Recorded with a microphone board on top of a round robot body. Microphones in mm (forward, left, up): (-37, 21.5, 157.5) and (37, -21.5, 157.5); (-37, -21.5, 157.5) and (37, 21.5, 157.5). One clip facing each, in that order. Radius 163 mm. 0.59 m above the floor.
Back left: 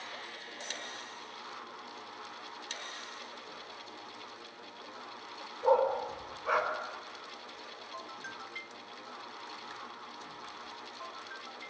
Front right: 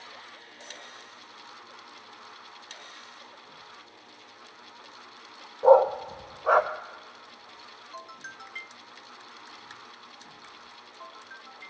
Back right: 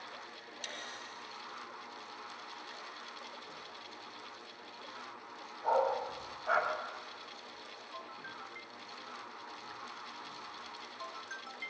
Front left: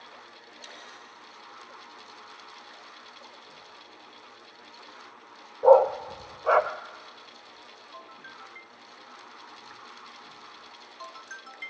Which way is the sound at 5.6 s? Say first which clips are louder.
Front right 9 dB, front left 13 dB; 25° left.